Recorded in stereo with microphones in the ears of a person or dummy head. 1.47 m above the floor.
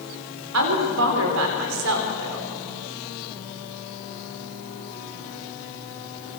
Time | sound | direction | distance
0.5 | a woman speaking | 70° right (ahead or behind) | 5 m